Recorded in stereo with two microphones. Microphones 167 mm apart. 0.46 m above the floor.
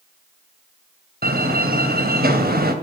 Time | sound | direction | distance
1.2 | a door slam | 70° right (ahead or behind) | 1.9 m